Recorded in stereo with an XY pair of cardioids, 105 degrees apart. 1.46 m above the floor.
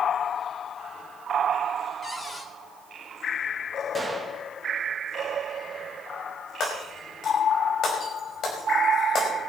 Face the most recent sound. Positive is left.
turn(degrees=60)